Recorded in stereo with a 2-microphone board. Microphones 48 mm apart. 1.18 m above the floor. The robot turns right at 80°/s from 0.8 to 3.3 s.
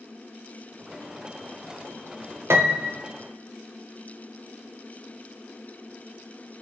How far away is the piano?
About 0.7 m.